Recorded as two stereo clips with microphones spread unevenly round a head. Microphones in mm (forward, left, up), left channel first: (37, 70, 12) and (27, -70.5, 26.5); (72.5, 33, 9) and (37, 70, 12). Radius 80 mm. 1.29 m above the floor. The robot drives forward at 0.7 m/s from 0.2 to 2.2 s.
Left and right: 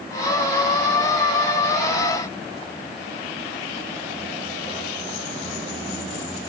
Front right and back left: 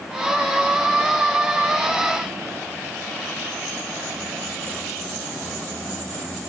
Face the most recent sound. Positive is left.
No sound to turn to.